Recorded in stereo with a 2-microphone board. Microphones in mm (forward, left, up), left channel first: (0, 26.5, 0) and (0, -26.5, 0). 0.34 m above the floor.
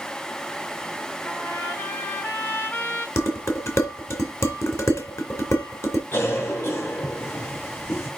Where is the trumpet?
50° left (ahead or behind), 2 m.